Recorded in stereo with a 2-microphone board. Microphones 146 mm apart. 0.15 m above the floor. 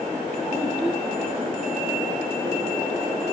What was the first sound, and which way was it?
A child speaking, centre (ahead or behind).